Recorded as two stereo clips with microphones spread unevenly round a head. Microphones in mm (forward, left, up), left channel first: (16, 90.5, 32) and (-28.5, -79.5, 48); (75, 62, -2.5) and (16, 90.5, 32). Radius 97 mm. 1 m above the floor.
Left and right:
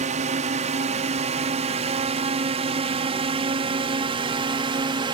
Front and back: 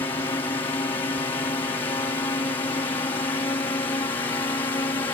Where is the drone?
55° right; by 5.2 s 40° right.